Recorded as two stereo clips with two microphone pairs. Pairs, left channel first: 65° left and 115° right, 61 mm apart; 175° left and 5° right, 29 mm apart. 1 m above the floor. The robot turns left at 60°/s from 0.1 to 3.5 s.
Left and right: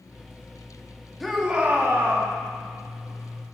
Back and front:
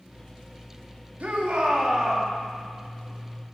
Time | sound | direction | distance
1.2 | a shout | 25° right | 2.5 m